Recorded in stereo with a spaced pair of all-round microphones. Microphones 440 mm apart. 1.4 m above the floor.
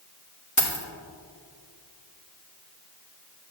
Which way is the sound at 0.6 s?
35° left (ahead or behind).